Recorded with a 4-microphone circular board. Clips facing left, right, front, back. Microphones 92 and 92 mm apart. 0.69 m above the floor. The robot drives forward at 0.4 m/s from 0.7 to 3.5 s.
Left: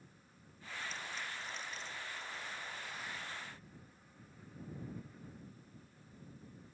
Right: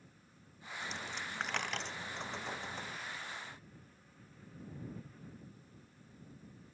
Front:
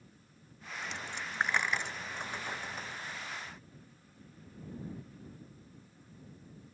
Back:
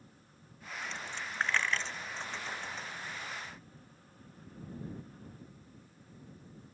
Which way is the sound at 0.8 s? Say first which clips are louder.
Right 2 dB, even; 70° right.